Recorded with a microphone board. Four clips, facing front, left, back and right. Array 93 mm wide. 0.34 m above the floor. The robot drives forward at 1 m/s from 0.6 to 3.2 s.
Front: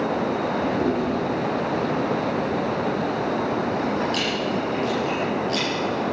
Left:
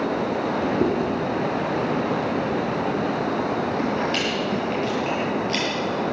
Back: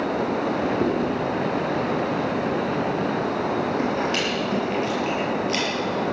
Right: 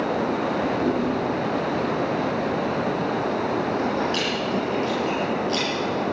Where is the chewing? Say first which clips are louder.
Left 1 dB, even; 110° left, 5 m; by 5.7 s 130° left, 6 m.